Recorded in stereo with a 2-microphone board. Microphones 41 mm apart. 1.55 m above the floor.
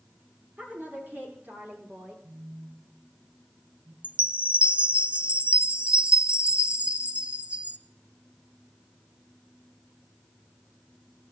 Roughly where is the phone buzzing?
Right.